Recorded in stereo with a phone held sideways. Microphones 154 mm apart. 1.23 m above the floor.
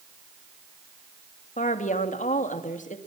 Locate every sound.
1.6 s a woman speaking: 55° left (ahead or behind), 2.5 m